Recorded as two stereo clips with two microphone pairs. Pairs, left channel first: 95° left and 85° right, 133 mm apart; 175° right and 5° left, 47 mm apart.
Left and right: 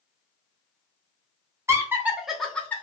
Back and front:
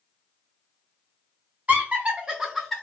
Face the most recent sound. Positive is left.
turn(degrees=115)